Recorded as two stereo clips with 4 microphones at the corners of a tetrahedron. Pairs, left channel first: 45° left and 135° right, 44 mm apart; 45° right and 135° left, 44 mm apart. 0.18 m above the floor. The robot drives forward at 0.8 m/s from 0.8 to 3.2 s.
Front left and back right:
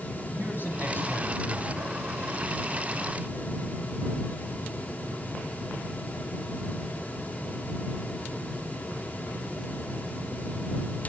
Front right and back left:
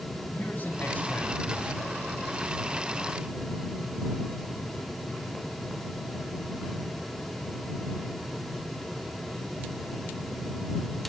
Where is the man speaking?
10° left, 9 m.